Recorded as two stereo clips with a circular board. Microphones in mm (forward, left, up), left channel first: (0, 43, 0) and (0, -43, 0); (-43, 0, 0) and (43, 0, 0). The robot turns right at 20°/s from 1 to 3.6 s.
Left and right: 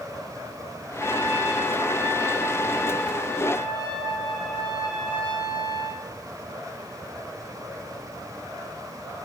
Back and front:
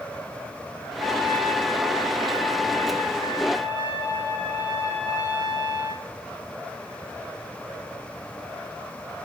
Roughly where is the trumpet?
Ahead right.